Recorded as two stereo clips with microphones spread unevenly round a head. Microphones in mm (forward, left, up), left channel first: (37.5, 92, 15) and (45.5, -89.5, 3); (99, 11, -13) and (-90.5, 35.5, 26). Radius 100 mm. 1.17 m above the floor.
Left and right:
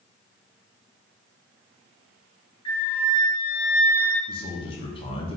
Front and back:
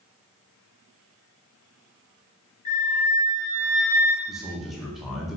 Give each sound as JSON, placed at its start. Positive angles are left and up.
{"t": 2.6, "sound": "a flute", "azimuth_deg": 30, "distance_m": 1.1}
{"t": 4.3, "sound": "a man speaking", "azimuth_deg": 60, "distance_m": 0.5}